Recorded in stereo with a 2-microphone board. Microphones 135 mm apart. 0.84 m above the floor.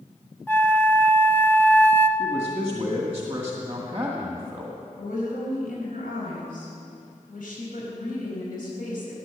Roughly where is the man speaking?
Centre.